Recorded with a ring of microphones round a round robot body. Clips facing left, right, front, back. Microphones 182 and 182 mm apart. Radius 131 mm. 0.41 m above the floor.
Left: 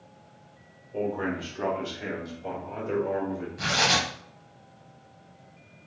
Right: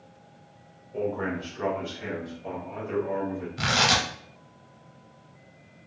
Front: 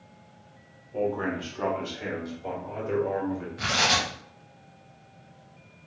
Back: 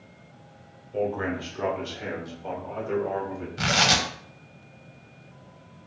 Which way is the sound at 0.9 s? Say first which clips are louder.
Even, even; 140° left.